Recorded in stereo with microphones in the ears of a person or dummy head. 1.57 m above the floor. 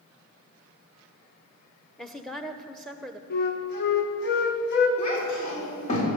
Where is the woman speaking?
5° right (ahead or behind), 0.8 m.